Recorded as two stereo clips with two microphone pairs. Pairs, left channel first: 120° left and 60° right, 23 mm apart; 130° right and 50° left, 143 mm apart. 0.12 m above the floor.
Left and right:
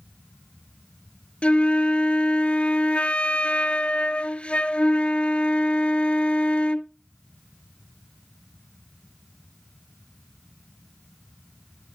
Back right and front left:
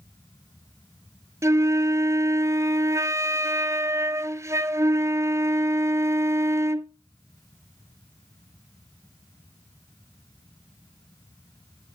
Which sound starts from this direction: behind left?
A flute, at 1.4 s.